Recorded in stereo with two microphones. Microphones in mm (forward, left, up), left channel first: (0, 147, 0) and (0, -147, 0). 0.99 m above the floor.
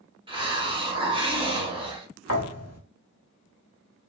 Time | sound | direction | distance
0.3 | a hiss | 20° right (ahead or behind) | 1.0 m
2.3 | a thud | 55° left (ahead or behind) | 1.0 m